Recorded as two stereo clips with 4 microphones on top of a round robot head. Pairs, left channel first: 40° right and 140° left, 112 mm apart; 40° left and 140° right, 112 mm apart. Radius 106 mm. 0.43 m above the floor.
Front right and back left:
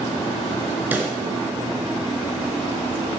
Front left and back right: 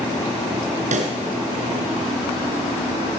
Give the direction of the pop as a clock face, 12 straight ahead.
5 o'clock.